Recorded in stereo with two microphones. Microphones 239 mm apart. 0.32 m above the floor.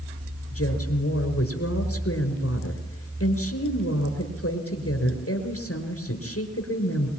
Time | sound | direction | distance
0.5 | a woman speaking | 75° left (ahead or behind) | 4.5 m